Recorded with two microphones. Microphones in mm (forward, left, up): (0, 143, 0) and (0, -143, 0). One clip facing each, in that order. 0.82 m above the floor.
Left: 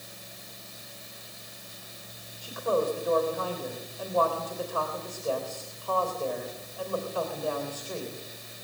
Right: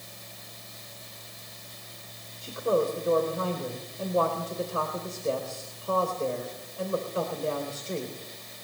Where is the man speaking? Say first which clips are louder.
Right 2 dB; 25° right (ahead or behind), 4 m.